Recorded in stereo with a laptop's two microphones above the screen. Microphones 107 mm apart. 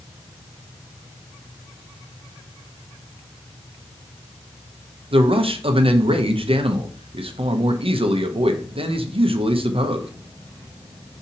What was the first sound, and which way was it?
A man speaking, 60° right (ahead or behind).